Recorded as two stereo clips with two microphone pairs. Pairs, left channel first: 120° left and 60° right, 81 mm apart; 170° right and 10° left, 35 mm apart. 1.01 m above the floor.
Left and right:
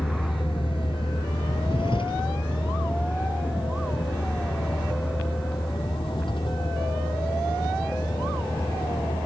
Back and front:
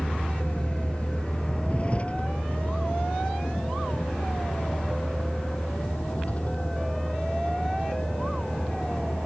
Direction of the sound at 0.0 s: 130° left.